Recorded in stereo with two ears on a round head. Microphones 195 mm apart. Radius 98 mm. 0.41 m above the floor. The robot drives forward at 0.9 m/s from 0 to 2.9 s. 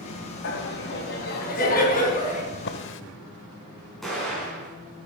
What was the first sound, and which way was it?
Laughter, 55° left (ahead or behind).